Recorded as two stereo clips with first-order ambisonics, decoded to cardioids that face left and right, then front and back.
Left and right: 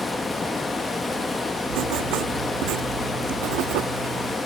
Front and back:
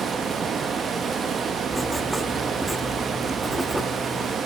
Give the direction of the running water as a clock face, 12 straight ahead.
7 o'clock.